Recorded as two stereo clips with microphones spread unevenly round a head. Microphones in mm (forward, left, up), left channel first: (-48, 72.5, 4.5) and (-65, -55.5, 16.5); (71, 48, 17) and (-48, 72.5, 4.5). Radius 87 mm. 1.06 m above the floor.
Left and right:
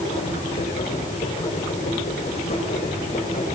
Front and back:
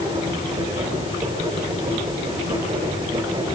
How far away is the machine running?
About 8 m.